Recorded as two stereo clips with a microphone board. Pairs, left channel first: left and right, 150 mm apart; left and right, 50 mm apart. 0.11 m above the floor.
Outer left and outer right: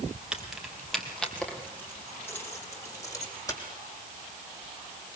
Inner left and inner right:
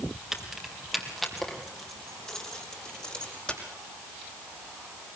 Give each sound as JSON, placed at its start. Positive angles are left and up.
{"t": 0.3, "sound": "keys jangling", "side_deg": -5, "distance_m": 2.5}